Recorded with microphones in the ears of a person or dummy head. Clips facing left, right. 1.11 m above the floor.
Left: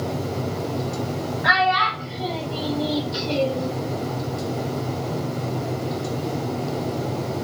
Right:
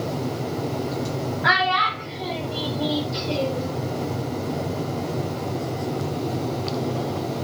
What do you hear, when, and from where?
1.4 s a child speaking: 40° right (ahead or behind), 1.0 m; by 3.7 s 45° left (ahead or behind), 0.5 m